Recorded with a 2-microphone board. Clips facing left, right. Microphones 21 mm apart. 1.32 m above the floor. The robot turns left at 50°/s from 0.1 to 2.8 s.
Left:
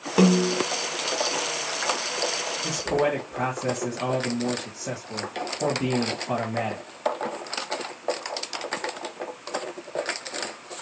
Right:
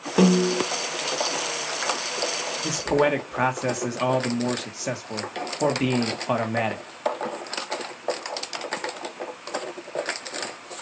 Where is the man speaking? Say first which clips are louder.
Right 3 dB; 75° right (ahead or behind), 1.3 m; by 6.8 s 65° right (ahead or behind), 1.3 m.